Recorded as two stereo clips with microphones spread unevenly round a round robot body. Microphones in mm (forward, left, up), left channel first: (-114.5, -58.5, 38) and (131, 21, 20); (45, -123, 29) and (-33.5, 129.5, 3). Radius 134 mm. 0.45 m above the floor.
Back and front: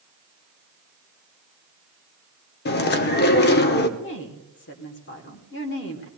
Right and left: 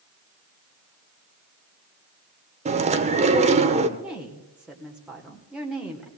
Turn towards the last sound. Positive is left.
turn(degrees=-175)